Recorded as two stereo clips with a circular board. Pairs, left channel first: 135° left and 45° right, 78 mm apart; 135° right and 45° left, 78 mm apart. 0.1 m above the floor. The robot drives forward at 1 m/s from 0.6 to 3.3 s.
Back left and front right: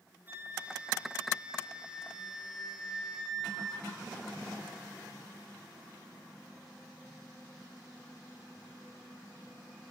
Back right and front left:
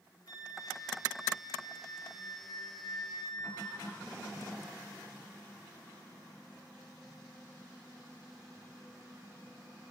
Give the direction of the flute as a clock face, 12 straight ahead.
4 o'clock.